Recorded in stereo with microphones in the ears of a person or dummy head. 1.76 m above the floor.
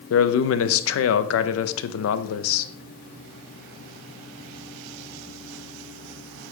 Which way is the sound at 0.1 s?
80° left.